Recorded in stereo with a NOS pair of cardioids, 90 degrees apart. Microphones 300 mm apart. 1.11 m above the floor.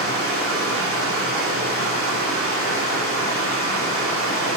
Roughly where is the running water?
Ahead right.